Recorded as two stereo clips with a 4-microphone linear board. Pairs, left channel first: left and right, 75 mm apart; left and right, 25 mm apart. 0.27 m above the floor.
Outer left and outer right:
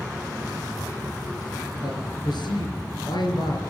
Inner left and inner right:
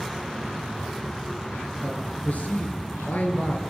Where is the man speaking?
75° left (ahead or behind), 5 m.